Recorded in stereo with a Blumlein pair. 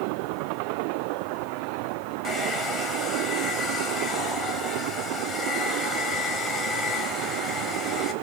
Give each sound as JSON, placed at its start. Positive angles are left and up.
{"t": 2.2, "sound": "a hair dryer", "azimuth_deg": 10, "distance_m": 4.5}